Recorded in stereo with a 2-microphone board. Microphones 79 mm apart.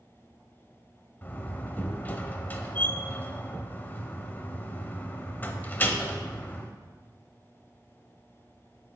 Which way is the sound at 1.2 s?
25° left (ahead or behind).